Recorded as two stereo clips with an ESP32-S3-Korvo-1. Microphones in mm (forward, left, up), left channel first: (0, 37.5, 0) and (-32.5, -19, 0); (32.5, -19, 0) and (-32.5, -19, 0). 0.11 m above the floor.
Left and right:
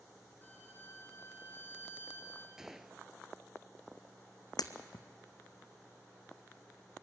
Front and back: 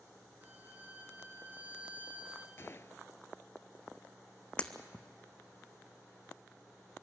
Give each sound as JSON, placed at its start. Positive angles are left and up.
{"t": 0.4, "sound": "a violin", "azimuth_deg": 115, "distance_m": 1.8}
{"t": 2.6, "sound": "a gunshot", "azimuth_deg": -40, "distance_m": 0.5}
{"t": 4.6, "sound": "breaking glass", "azimuth_deg": 70, "distance_m": 1.0}